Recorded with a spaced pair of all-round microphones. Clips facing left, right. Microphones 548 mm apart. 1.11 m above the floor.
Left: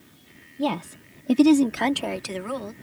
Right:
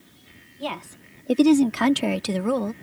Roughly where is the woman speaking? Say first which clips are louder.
Left 7 dB; left.